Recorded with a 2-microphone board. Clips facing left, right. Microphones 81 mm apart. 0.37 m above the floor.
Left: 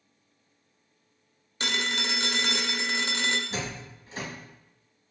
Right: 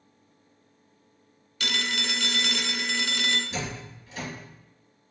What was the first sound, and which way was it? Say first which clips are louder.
A phone ringing: even; 30° left (ahead or behind).